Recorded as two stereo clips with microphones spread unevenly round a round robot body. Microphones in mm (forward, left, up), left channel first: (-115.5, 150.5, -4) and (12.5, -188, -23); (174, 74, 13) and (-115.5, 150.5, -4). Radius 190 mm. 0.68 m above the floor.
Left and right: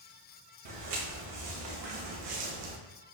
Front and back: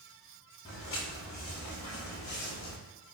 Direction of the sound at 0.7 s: 90° right.